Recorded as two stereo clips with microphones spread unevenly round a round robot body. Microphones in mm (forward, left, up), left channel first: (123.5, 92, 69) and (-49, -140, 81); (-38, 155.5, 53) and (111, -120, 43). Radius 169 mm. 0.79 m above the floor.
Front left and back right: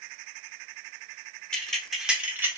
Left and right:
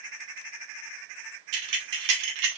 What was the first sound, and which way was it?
Keys jangling, 35° right.